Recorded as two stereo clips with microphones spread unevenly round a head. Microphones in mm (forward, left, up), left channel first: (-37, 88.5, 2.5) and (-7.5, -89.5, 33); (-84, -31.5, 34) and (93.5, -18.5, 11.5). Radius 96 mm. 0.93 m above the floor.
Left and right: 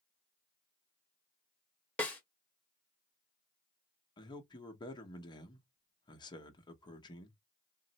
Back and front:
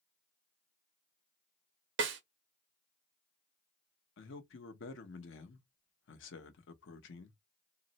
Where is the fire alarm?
I don't hear a fire alarm.